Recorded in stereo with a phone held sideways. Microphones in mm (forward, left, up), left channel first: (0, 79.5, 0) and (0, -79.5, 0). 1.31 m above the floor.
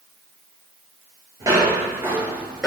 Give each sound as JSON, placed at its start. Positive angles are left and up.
{"t": 1.4, "sound": "footsteps", "side_deg": -20, "distance_m": 1.5}